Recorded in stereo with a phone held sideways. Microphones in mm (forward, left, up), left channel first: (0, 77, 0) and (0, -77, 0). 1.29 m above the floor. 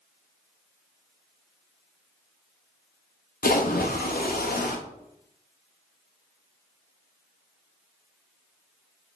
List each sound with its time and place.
3.4 s a splash: 80° left, 0.6 m